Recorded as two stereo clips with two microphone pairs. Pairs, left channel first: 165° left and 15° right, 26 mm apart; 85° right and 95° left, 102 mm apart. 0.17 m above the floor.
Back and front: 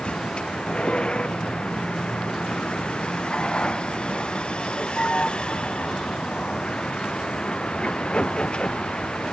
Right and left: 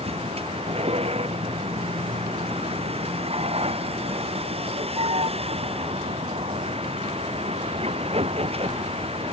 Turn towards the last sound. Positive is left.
turn(degrees=105)